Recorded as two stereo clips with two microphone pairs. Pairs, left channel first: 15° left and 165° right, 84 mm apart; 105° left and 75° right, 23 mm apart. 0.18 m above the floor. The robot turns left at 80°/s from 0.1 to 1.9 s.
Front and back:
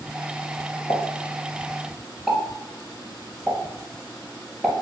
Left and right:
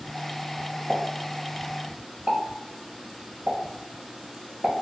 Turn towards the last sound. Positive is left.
turn(degrees=-85)